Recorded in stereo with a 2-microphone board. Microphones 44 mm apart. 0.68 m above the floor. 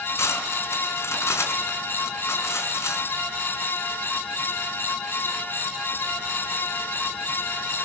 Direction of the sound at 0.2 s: 85° left.